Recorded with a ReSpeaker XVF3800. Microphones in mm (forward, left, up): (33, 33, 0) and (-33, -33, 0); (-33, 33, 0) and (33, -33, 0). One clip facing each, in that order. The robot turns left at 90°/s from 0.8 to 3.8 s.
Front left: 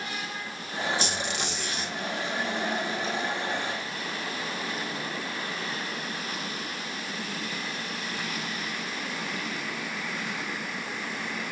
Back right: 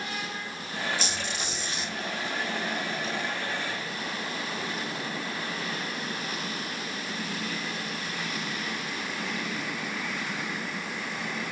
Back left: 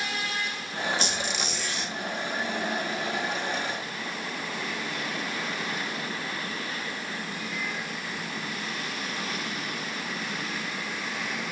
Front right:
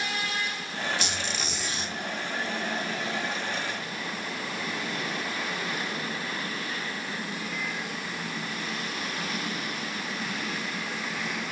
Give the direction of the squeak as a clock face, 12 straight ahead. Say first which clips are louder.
Front left 2 dB, back left 2 dB; 9 o'clock.